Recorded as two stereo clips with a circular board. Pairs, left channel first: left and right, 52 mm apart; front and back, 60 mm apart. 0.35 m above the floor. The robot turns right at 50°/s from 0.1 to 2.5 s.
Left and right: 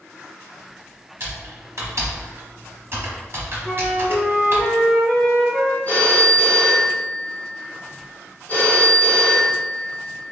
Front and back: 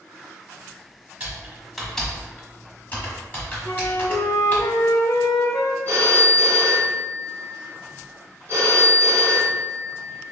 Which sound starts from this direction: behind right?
Typing on a keyboard, at 1.2 s.